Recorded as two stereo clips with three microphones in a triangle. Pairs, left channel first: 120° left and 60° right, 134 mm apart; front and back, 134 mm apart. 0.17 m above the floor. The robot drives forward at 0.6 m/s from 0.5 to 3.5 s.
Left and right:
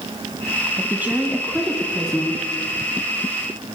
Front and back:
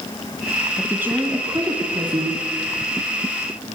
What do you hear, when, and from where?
0.8 s a woman speaking: 110° right, 1.3 m; by 2.4 s 155° right, 1.7 m